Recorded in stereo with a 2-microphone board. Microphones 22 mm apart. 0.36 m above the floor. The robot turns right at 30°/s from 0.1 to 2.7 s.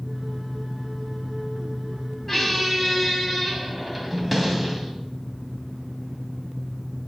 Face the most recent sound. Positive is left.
turn(degrees=0)  # may be behind; listen again after turning